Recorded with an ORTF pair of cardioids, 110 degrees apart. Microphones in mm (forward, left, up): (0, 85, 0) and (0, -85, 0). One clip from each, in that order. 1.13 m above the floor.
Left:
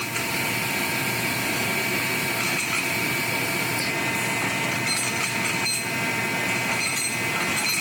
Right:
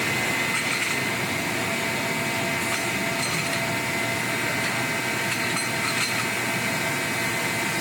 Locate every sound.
Only background noise.